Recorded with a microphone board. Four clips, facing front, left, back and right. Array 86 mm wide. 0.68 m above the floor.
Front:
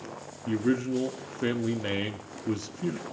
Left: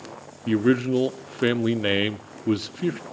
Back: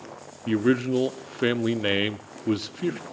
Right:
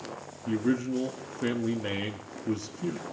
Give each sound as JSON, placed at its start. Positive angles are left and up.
{"t": 0.5, "sound": "a man speaking", "azimuth_deg": 125, "distance_m": 0.7}